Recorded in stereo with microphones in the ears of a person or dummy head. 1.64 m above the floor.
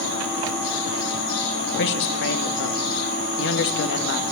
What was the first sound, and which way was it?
A man speaking, 65° left (ahead or behind).